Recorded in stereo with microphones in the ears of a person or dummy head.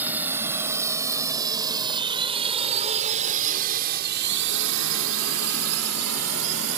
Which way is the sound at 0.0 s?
15° right (ahead or behind).